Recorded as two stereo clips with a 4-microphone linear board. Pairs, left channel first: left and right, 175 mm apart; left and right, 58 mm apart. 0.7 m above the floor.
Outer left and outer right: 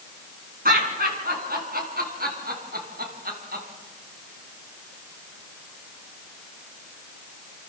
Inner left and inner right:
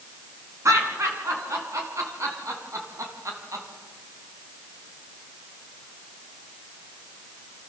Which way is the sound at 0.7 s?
55° right (ahead or behind).